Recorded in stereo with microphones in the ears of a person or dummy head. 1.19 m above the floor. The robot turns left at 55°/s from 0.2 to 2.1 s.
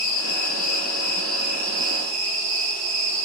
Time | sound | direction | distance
0.0 | an insect | 65° left | 1.0 m